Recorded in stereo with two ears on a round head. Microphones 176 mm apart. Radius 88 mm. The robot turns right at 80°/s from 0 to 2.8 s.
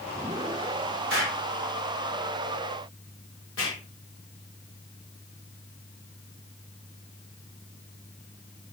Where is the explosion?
55° right (ahead or behind), 5.5 m; by 3.8 s 80° left, 5.5 m.